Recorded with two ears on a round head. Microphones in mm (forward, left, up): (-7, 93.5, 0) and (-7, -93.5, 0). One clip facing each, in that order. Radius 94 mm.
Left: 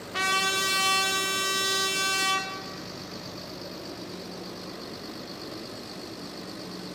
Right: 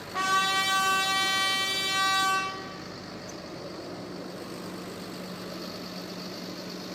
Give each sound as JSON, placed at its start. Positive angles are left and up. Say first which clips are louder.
{"t": 0.1, "sound": "a trumpet", "louder": "even", "side_deg": 35, "distance_m": 0.7}